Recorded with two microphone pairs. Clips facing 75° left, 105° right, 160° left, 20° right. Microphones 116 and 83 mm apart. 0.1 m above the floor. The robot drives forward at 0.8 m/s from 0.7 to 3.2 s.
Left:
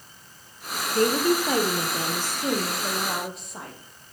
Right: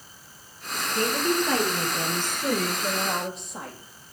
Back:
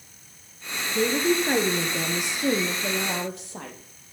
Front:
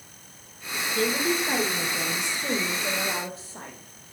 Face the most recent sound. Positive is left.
turn(degrees=160)